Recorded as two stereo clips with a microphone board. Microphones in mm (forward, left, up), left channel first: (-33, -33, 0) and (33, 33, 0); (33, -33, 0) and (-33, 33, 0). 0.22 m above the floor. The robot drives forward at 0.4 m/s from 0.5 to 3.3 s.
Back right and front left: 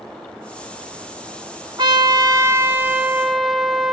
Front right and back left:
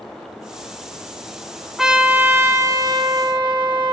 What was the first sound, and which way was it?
A trumpet, 50° left.